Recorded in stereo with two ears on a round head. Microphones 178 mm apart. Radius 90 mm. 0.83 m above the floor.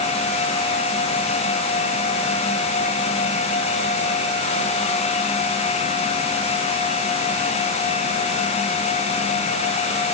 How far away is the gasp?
I don't hear a gasp.